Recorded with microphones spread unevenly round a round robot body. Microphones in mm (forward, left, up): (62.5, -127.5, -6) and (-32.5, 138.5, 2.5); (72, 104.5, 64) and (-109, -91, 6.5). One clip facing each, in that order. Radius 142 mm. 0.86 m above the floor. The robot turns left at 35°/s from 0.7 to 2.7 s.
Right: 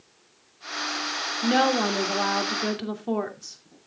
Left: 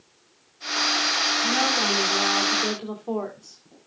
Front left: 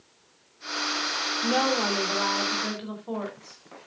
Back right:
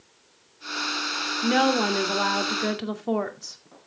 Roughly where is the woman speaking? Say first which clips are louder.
Right 6 dB, back right 4 dB; right.